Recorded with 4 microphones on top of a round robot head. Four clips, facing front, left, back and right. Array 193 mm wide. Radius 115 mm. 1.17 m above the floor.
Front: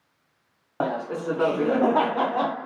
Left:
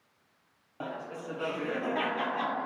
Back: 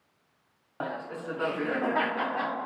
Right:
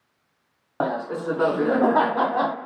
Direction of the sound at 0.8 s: 55° right.